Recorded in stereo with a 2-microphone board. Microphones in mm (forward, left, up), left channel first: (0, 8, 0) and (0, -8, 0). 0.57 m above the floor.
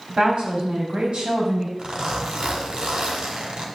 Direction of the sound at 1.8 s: 70° right (ahead or behind).